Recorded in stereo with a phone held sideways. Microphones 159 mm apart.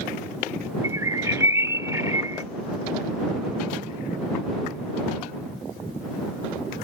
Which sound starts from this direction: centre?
A bird, at 0.8 s.